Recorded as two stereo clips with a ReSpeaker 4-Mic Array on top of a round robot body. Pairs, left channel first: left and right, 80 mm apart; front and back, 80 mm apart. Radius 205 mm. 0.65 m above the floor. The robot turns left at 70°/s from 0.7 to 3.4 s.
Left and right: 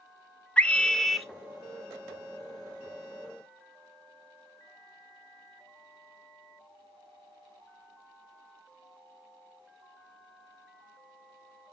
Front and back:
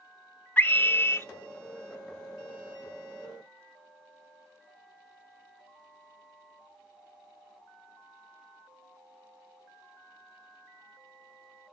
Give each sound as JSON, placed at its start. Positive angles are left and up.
{"t": 0.6, "sound": "a scream", "azimuth_deg": 35, "distance_m": 0.9}